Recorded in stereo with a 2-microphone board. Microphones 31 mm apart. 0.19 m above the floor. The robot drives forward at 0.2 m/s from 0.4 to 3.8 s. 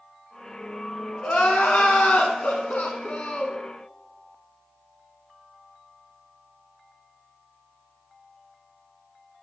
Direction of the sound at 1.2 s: 55° left (ahead or behind).